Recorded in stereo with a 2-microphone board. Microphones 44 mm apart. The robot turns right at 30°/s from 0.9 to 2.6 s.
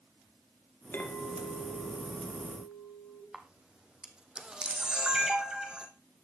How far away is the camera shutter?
About 1.7 m.